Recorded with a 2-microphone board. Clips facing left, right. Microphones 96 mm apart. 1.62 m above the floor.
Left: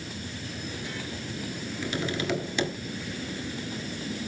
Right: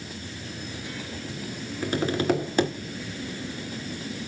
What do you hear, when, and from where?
1.8 s tapping: 45° right (ahead or behind), 1.9 m